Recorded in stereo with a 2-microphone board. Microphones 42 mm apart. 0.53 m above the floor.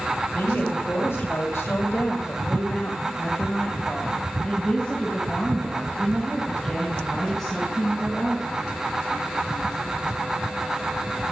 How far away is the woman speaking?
About 3 m.